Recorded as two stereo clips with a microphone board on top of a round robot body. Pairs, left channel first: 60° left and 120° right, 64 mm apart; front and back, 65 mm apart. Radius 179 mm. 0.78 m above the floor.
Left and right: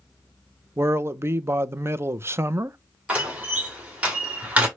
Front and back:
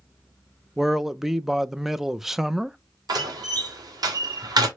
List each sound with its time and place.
0.8 s a man speaking: 95° right, 0.6 m
3.1 s a door slam: 170° left, 1.8 m